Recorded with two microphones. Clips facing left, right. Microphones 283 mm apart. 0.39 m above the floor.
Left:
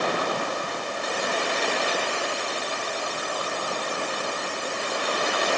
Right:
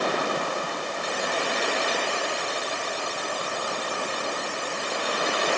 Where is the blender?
I don't hear a blender.